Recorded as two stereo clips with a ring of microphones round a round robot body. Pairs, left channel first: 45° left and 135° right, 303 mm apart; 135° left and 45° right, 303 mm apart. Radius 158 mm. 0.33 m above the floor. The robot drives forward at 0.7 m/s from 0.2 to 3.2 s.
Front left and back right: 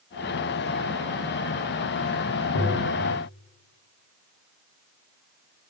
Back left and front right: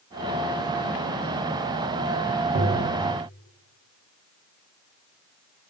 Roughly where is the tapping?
Ahead.